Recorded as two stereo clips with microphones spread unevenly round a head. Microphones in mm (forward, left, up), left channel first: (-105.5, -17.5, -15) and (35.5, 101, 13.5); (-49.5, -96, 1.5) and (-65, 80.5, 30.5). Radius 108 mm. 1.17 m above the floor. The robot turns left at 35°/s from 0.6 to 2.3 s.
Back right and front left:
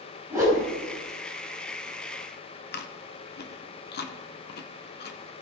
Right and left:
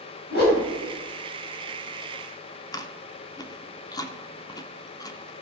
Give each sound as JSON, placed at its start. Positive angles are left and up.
{"t": 0.3, "sound": "a whoosh", "azimuth_deg": -35, "distance_m": 3.5}
{"t": 2.7, "sound": "chewing", "azimuth_deg": -155, "distance_m": 0.9}